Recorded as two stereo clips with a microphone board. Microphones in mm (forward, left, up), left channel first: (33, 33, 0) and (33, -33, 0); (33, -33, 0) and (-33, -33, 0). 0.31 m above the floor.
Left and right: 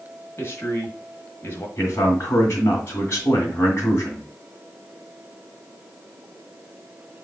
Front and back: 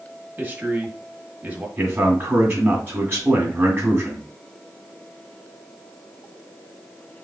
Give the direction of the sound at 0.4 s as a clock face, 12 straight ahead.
8 o'clock.